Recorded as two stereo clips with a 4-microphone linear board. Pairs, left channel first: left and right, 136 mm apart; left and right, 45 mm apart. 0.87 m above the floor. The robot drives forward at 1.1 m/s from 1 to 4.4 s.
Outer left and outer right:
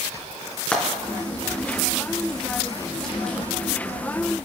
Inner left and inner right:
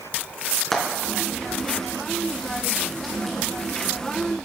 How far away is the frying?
About 4 m.